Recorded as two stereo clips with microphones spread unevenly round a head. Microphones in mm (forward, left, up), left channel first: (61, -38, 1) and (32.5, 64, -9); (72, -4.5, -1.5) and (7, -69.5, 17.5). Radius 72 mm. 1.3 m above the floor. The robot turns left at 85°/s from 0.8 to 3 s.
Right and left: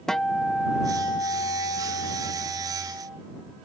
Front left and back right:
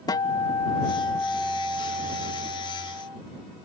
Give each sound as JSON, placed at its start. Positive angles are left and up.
{"t": 0.1, "sound": "a guitar", "azimuth_deg": 5}